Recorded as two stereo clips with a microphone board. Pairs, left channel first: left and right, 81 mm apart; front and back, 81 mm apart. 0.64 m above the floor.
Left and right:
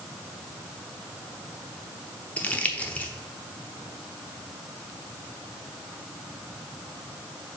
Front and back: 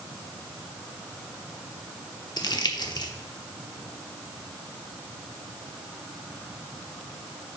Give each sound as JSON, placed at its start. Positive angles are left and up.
{"t": 2.4, "sound": "crumpling", "azimuth_deg": 20, "distance_m": 0.9}